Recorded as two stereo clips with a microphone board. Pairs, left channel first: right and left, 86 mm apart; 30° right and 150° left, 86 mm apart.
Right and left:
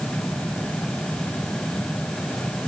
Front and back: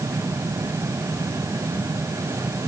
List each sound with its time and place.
Only background noise.